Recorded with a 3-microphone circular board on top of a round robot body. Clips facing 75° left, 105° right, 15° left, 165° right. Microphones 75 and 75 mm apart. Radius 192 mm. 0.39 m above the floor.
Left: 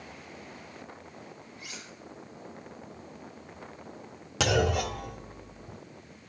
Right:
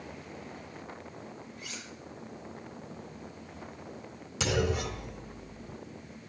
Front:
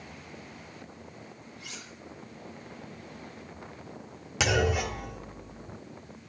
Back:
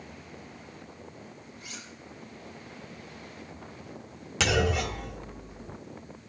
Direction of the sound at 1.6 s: 5° right.